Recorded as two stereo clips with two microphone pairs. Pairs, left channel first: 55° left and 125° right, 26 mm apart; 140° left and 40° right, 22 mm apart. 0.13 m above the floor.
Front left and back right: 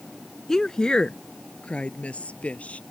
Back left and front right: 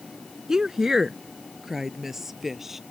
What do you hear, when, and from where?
0.5 s a woman speaking: 10° left; by 2.8 s 40° left